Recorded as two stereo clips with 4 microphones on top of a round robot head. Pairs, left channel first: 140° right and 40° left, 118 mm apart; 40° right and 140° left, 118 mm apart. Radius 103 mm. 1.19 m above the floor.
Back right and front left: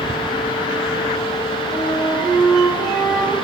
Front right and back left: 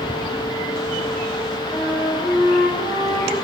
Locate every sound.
1.7 s a flute: 25° left, 9 m